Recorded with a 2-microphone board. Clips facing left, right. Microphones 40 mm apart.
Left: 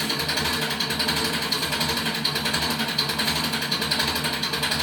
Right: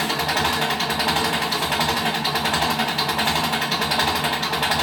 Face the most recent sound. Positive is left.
turn(degrees=-65)  # may be behind; listen again after turning